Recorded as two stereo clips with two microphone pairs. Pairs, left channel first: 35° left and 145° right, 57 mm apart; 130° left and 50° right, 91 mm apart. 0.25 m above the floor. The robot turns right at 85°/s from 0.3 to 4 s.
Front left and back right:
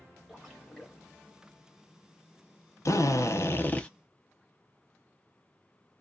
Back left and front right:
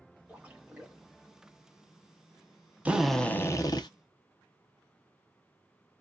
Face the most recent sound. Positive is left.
turn(degrees=115)